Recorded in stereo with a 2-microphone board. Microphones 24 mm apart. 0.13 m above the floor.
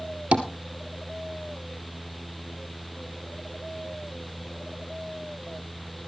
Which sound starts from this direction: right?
Tapping, at 0.3 s.